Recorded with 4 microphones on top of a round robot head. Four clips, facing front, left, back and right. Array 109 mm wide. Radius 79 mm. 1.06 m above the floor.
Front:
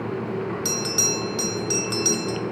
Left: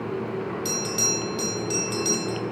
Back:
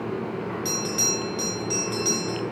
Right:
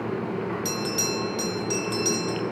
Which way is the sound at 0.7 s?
Straight ahead.